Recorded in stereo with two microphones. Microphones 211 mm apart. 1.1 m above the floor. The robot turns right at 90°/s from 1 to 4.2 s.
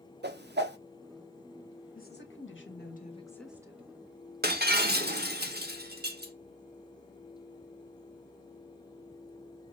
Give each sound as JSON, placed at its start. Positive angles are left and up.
{"t": 0.2, "sound": "a whoosh", "side_deg": -60, "distance_m": 0.6}
{"t": 1.9, "sound": "a woman speaking", "azimuth_deg": 45, "distance_m": 1.2}
{"t": 4.4, "sound": "breaking glass", "side_deg": -55, "distance_m": 1.0}